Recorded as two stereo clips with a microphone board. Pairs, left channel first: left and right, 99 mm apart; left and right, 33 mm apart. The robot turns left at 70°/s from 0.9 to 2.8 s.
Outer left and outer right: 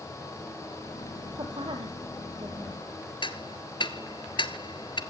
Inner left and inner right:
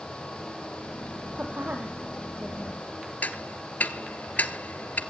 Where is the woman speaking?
45° right (ahead or behind), 2.5 m; by 2.8 s 25° right (ahead or behind), 2.5 m.